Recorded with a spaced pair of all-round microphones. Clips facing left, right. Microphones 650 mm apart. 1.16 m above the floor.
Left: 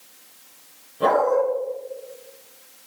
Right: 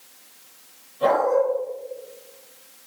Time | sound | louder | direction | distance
1.0 | a dog barking | left 1 dB | 75° left (ahead or behind) | 4 m